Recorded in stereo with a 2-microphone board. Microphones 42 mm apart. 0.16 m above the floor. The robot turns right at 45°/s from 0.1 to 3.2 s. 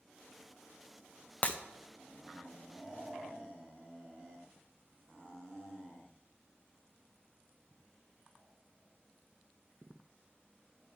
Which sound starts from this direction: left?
Breaking glass, at 1.4 s.